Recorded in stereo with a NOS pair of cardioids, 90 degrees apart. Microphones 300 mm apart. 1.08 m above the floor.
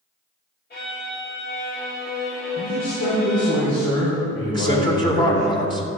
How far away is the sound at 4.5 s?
About 3 m.